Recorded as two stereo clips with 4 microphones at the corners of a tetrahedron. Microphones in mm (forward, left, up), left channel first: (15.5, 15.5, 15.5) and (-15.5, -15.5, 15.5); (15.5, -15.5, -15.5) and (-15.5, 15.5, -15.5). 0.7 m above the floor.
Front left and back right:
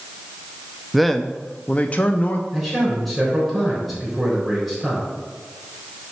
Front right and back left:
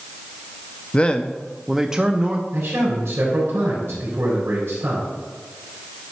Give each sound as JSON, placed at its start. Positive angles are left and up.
{"t": 0.9, "sound": "a man speaking", "azimuth_deg": -50, "distance_m": 0.5}
{"t": 2.5, "sound": "a man speaking", "azimuth_deg": 140, "distance_m": 3.5}